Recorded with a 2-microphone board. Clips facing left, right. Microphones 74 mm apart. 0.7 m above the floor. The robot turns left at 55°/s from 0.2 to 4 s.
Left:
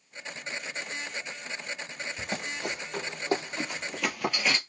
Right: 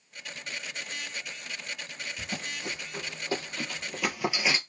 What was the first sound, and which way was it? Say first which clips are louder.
Running footsteps: left 3 dB; 65° left (ahead or behind).